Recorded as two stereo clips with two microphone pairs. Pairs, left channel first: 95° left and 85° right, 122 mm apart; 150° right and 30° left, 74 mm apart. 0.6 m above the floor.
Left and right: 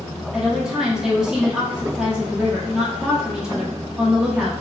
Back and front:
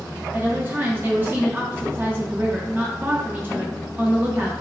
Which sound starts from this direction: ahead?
A woman speaking, at 0.3 s.